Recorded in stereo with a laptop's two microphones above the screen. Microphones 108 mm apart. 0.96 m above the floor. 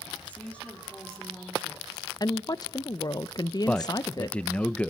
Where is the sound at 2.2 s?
35° left (ahead or behind), 0.6 m.